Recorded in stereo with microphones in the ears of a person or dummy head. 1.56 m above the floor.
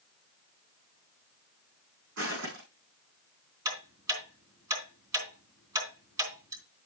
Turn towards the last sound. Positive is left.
turn(degrees=-20)  # may be behind; listen again after turning